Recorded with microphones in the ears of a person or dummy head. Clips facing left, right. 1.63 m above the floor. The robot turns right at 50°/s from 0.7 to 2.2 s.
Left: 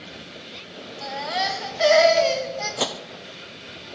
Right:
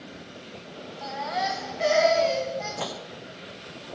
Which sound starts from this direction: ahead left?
A baby crying, at 1.0 s.